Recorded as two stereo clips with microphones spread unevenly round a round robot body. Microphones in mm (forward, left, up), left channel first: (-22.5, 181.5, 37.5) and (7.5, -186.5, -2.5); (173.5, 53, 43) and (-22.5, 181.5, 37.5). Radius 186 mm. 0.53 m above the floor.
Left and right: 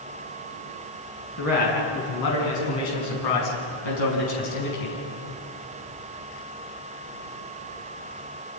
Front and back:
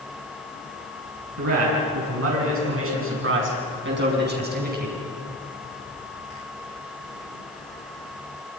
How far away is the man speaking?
About 7.5 m.